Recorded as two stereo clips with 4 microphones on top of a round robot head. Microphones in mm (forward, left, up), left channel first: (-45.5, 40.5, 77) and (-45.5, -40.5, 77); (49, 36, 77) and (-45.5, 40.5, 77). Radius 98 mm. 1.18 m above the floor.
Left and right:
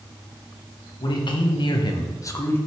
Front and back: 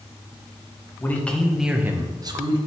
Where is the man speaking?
65° left, 2.0 m; by 2.6 s 150° left, 1.6 m.